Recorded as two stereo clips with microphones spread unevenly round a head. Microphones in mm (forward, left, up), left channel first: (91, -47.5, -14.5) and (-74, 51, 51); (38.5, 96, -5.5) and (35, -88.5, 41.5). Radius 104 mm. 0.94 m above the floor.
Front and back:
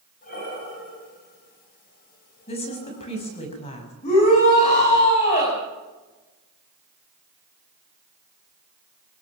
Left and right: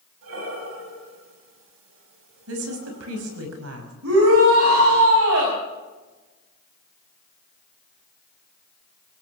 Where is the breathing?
80° right, 4.5 m.